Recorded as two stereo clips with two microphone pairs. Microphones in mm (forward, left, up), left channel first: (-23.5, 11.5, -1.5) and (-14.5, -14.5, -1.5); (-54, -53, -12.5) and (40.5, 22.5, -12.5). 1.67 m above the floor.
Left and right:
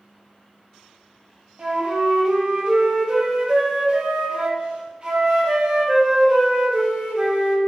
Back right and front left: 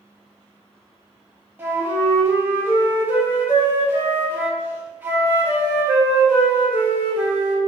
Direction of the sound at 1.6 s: 30° right.